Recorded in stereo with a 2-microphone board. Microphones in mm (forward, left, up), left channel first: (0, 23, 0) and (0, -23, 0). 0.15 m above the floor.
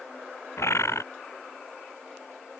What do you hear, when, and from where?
0.6 s a bird: 75° left (ahead or behind)